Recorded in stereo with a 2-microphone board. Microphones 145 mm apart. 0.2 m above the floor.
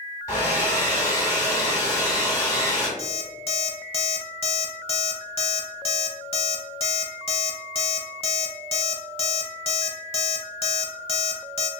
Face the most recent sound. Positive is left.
turn(degrees=40)  # may be behind; listen again after turning